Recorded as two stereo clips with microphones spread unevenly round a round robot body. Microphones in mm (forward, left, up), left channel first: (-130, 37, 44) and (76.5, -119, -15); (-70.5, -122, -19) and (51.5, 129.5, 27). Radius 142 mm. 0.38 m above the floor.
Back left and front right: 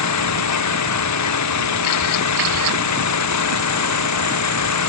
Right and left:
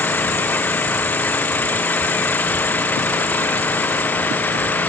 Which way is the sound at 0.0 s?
160° left.